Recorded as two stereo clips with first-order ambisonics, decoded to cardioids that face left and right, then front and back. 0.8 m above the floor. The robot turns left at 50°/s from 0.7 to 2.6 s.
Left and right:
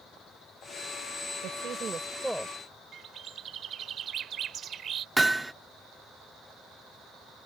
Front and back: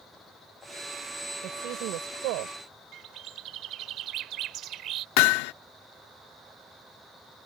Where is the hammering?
5° right.